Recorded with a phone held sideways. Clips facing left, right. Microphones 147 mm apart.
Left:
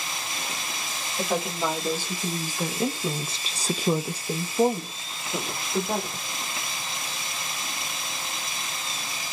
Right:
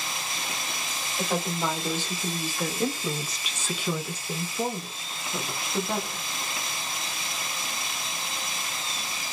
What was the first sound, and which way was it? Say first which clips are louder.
A woman speaking: left 1 dB; 5° left (ahead or behind).